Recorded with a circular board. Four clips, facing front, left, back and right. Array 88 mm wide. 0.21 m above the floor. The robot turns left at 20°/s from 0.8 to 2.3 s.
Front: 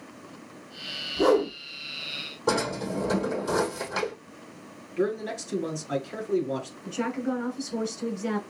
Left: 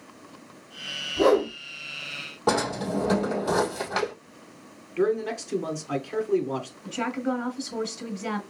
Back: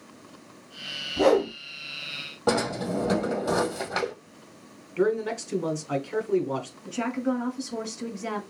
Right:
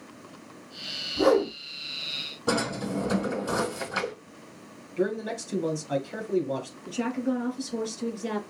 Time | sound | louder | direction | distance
1.2 | a whoosh | left 1 dB, back 1 dB | 165° left | 2 m
2.5 | a drawer | left 3 dB, back 1 dB | 135° left | 2.5 m
5.0 | a man speaking | left 4 dB, back 3 dB | 140° left | 2.5 m
6.8 | a woman speaking | even, back 1 dB | 115° left | 2.5 m